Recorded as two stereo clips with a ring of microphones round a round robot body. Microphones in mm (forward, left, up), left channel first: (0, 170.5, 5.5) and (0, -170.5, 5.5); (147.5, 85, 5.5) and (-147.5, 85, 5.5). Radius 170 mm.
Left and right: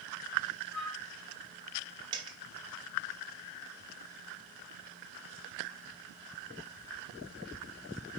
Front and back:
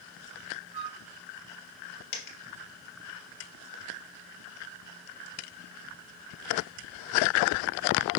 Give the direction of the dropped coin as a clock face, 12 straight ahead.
12 o'clock.